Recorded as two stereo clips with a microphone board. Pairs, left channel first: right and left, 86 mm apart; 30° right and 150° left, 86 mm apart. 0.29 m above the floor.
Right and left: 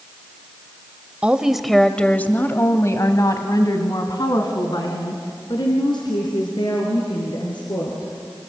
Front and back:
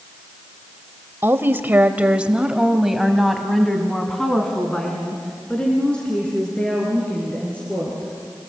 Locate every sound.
1.2 s a woman speaking: 145° left, 1.2 m; by 8.1 s 105° right, 5.5 m